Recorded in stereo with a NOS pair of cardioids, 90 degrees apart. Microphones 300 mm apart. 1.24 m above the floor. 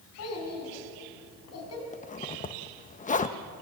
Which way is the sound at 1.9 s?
25° left.